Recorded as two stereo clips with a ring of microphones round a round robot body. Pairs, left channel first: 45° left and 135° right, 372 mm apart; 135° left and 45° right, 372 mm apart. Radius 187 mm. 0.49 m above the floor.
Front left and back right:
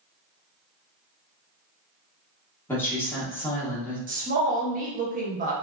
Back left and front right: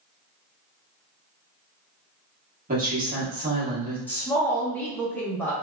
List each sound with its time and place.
2.7 s a woman speaking: 30° right, 1.1 m
4.1 s a woman speaking: 145° right, 0.7 m